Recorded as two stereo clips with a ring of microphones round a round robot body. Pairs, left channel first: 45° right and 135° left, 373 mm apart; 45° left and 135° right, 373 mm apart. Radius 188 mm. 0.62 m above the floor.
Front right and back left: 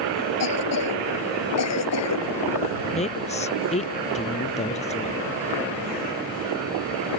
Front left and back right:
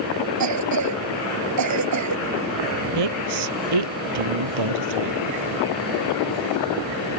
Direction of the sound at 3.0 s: 115° right.